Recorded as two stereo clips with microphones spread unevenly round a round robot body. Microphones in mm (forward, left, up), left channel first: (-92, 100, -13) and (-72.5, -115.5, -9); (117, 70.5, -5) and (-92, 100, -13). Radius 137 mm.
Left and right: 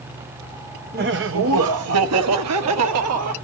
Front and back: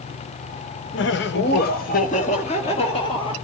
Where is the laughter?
35° right, 0.7 m; by 3.3 s 85° right, 2 m.